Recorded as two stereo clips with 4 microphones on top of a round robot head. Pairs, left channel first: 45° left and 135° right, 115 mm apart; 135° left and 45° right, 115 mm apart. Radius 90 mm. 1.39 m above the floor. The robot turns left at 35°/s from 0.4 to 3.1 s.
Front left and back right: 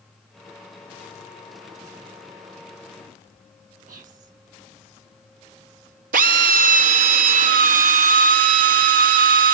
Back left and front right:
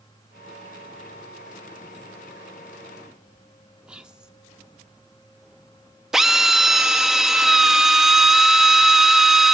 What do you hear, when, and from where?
3.9 s whispering: 130° right, 1.4 m
6.1 s a drill: 135° right, 0.6 m